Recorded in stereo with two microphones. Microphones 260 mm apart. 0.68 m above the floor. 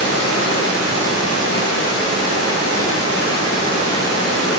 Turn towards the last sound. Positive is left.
turn(degrees=60)  # may be behind; listen again after turning